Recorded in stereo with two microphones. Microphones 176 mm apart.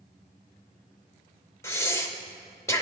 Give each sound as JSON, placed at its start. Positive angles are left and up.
{"t": 1.6, "sound": "breathing", "side_deg": 15, "distance_m": 0.7}